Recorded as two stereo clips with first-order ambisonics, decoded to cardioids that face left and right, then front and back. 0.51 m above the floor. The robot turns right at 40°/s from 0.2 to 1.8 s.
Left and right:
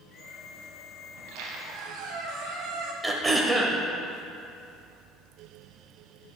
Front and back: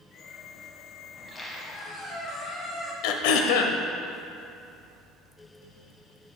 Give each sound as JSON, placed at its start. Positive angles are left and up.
{"t": 1.1, "sound": "a squeak", "azimuth_deg": -85, "distance_m": 1.1}
{"t": 3.0, "sound": "throat clearing", "azimuth_deg": -5, "distance_m": 0.6}